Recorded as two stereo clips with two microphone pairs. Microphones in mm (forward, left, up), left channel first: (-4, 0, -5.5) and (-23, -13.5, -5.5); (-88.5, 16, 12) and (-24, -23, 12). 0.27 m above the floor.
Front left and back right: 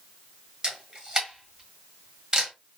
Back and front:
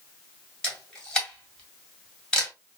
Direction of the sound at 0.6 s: 150° right.